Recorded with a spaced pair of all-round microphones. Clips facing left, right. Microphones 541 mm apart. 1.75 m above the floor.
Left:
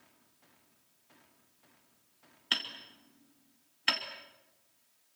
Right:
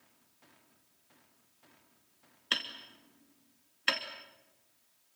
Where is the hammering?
10° left (ahead or behind), 2.5 m.